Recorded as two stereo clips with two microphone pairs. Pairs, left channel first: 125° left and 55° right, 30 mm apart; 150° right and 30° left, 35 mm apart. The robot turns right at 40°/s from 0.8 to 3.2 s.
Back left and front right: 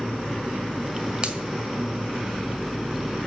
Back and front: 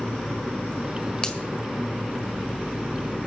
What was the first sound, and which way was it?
A finger snap, 100° right.